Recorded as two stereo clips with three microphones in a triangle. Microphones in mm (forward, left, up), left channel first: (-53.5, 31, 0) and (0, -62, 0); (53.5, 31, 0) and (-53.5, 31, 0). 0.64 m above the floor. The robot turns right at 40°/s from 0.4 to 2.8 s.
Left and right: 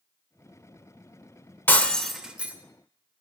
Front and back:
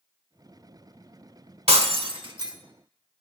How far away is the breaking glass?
About 1.4 m.